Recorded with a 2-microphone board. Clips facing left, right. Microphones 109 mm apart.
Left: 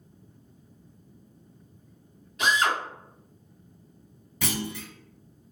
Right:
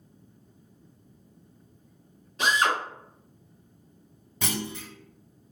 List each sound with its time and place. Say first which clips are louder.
2.4 s a drill: even; 30° right (ahead or behind), 1.5 m
4.4 s a clunk: left 1 dB; 25° right (ahead or behind), 0.7 m